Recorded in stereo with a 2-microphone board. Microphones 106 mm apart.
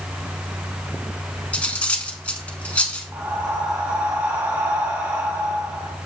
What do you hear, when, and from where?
1.5 s cutlery clinking: 10° left (ahead or behind), 0.9 m
3.1 s breathing: 15° right (ahead or behind), 1.9 m